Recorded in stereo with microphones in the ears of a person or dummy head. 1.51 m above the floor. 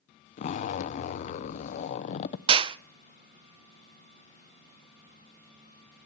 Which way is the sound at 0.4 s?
40° left (ahead or behind).